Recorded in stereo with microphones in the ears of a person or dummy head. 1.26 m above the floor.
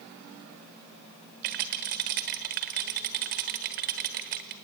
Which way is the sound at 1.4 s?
40° right (ahead or behind).